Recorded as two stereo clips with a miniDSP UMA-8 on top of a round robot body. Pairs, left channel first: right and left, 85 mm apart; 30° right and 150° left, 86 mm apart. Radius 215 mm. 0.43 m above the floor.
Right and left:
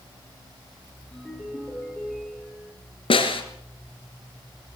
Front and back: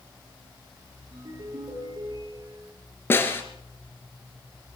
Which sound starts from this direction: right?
A snare drum, at 3.1 s.